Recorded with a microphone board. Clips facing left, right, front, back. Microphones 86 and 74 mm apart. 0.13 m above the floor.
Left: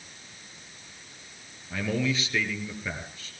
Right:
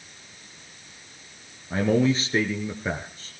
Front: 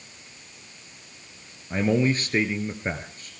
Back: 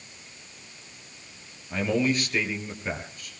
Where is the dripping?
I don't hear dripping.